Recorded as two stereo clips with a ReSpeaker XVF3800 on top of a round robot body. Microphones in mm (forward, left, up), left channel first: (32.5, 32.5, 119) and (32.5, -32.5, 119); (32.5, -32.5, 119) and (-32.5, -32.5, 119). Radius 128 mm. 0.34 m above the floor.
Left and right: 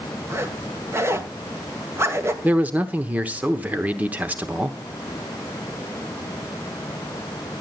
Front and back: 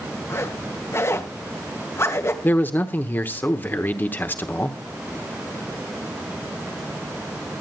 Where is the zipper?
45° right, 2.5 m.